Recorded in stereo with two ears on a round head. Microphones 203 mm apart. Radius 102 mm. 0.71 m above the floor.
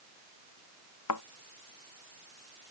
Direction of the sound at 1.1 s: 85° left.